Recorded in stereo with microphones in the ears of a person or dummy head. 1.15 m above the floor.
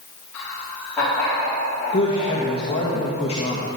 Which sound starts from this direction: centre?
Laughter, at 0.3 s.